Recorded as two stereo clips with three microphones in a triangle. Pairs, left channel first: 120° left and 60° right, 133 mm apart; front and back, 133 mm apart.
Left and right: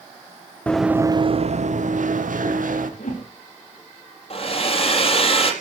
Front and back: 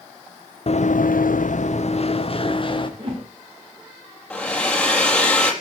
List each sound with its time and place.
0.7 s running footsteps: 40° left, 1.1 m; by 2.9 s 55° right, 3.5 m
3.0 s a whoosh: 130° left, 7.5 m
4.3 s a hair dryer: 85° left, 4 m